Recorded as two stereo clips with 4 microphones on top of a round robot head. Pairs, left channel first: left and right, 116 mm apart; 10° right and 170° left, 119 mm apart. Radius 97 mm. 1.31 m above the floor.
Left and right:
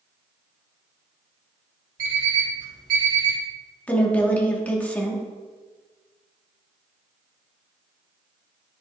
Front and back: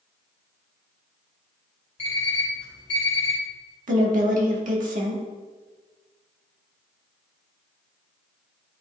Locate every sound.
2.0 s an alarm clock: 65° right, 2.5 m
3.9 s a woman speaking: 170° left, 1.6 m